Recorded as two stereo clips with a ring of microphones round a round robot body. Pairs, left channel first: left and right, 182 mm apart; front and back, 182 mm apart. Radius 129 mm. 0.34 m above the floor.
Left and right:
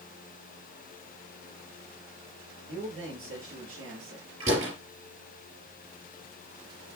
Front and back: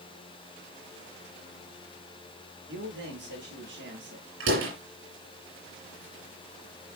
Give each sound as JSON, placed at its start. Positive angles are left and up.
{"t": 2.7, "sound": "a man speaking", "azimuth_deg": -125, "distance_m": 7.0}
{"t": 4.4, "sound": "a door slam", "azimuth_deg": -155, "distance_m": 5.5}